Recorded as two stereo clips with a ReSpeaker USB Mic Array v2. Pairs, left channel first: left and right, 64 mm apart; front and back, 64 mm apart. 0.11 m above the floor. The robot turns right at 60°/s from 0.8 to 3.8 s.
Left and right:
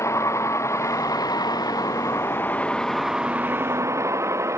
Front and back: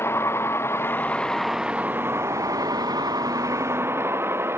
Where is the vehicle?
50° left; by 4.6 s 130° right.